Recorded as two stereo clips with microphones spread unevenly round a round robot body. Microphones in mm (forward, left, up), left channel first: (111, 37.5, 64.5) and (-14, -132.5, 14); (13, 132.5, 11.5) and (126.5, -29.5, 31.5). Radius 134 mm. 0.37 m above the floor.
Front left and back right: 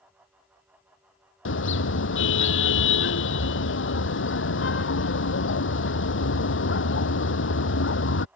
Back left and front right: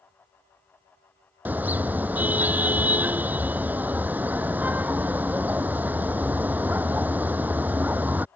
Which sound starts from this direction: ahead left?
A car horn, at 1.4 s.